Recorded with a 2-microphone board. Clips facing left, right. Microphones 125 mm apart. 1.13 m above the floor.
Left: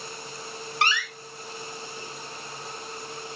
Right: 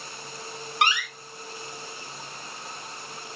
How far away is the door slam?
About 1.7 m.